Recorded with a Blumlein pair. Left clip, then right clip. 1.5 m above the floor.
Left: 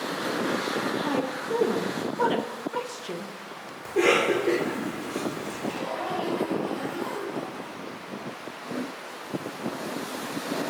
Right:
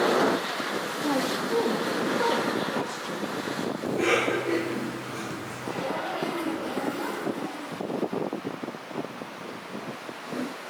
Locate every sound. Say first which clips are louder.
1.0 s a woman speaking: right 1 dB; 10° left, 0.5 m
3.9 s a cough: left 3 dB; 40° left, 1.6 m
5.6 s a zipper: right 1 dB; 30° right, 2 m